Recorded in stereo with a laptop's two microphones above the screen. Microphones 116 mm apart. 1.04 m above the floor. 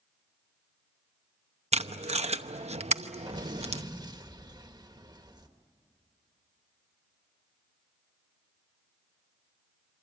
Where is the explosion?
35° right (ahead or behind), 1.3 m.